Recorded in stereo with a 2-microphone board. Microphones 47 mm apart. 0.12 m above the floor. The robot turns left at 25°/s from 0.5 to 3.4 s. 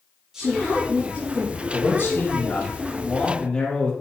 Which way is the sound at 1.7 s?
55° left.